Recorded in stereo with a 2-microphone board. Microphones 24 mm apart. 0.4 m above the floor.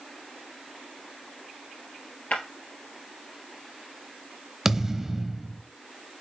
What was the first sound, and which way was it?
Breaking glass, 70° left (ahead or behind).